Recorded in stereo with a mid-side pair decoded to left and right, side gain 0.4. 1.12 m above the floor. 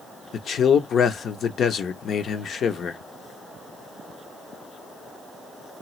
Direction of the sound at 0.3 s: 60° left.